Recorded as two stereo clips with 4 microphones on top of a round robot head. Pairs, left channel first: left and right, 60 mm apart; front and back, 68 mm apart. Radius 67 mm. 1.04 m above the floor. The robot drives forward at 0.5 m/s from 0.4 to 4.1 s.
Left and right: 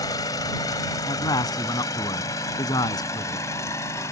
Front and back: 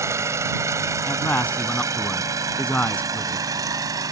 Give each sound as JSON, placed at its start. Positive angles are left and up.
{"t": 0.0, "sound": "an engine running", "azimuth_deg": 135}
{"t": 1.1, "sound": "a man speaking", "azimuth_deg": 70}